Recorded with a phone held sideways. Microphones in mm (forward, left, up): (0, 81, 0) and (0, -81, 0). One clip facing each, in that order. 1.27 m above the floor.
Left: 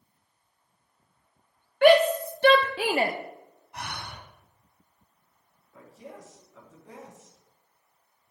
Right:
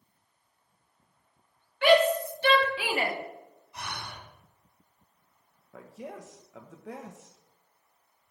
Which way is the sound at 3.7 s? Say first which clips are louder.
Left 2 dB; 60° left (ahead or behind).